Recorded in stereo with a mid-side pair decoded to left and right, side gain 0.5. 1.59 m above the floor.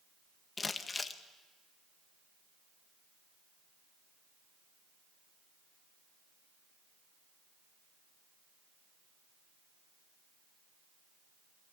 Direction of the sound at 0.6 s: 30° left.